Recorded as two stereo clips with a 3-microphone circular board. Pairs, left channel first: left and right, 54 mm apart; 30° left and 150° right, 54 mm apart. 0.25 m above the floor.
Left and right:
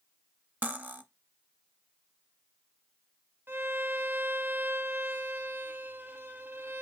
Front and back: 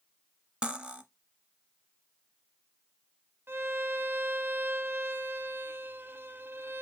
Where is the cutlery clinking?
100° right, 0.6 m.